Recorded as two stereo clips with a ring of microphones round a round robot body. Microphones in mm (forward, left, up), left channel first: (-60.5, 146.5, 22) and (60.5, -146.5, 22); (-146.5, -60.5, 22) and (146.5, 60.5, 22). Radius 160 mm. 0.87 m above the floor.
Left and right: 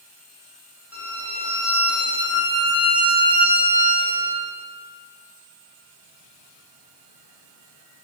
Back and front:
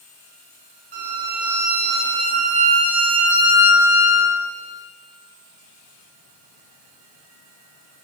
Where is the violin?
15° left, 2.5 m.